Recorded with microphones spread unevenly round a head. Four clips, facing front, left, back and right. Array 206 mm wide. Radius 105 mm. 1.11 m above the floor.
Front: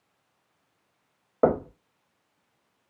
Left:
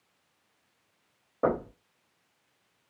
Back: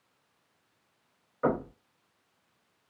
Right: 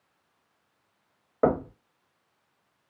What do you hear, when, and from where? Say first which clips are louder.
1.4 s knocking: right 4 dB, front 6 dB; 15° right, 1.1 m